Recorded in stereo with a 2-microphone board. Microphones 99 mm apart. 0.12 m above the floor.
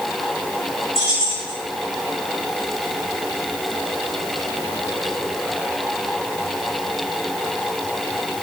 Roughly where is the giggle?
No giggle in this recording.